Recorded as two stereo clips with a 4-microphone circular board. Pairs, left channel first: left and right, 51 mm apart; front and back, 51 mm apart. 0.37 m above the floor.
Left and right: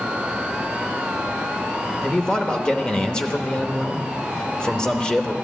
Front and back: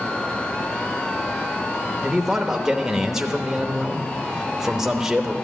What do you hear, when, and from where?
2.0 s a man speaking: 120° left, 0.9 m